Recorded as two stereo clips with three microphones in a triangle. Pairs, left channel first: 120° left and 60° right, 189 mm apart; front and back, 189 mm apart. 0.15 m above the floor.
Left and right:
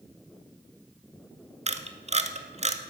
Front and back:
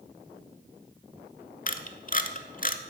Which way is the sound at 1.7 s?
20° right.